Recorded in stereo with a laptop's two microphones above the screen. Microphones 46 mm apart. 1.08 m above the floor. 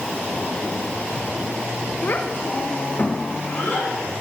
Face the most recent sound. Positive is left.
turn(degrees=55)  # may be behind; listen again after turning